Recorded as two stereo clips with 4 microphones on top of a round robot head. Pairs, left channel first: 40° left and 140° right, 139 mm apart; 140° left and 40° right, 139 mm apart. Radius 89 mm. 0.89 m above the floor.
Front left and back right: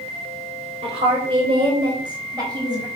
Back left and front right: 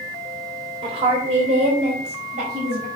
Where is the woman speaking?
95° right, 3 m; by 2.9 s 80° right, 4.5 m.